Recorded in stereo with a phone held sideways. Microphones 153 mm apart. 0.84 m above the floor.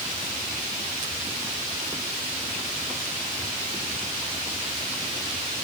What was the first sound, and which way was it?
Only background noise.